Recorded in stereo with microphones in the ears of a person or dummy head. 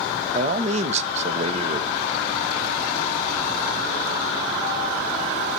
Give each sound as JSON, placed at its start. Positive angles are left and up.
{"t": 0.3, "sound": "a man speaking", "side_deg": -30, "distance_m": 0.6}